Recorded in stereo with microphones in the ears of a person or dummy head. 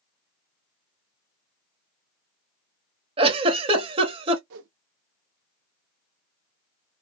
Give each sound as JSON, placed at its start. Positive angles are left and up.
{"t": 3.2, "sound": "a giggle", "side_deg": -25, "distance_m": 0.7}
{"t": 4.5, "sound": "a whoosh", "side_deg": -60, "distance_m": 0.6}